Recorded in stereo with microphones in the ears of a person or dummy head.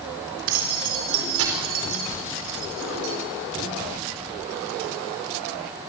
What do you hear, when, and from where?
0.5 s keys jangling: 75° right (ahead or behind), 4 m